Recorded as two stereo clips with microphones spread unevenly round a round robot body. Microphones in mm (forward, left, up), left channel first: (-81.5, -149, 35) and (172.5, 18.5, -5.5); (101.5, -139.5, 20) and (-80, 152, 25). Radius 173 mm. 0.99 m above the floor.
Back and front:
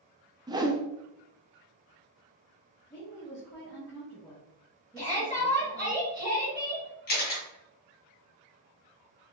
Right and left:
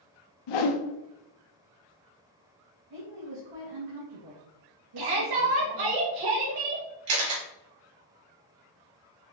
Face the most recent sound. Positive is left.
turn(degrees=150)